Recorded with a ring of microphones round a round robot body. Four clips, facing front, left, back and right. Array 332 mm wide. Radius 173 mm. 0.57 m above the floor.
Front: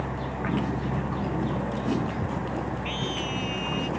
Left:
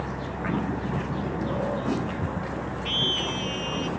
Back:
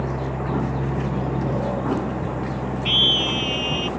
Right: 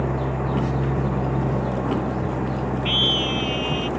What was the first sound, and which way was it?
An engine running, 120° right.